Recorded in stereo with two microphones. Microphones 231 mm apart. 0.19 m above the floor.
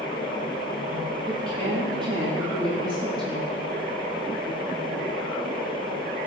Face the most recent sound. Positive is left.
turn(degrees=-20)  # may be behind; listen again after turning